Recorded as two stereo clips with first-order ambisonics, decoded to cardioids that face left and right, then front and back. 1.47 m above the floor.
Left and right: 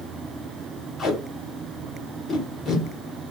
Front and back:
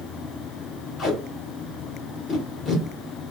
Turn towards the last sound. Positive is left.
turn(degrees=45)